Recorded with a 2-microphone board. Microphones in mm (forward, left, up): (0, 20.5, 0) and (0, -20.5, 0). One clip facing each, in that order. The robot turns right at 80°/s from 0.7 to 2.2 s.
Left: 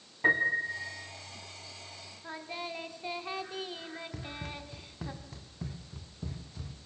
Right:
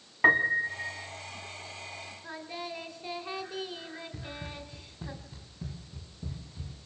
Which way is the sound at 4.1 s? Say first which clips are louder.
Even; 75° left (ahead or behind).